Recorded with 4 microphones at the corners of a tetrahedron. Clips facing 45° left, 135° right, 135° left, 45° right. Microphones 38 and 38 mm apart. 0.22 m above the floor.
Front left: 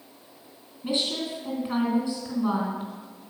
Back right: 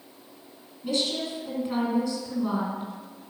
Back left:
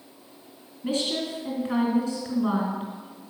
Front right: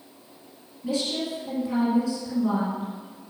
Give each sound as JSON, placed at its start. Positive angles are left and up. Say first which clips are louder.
{"t": 0.8, "sound": "a woman speaking", "louder": "even, even", "azimuth_deg": 105, "distance_m": 2.5}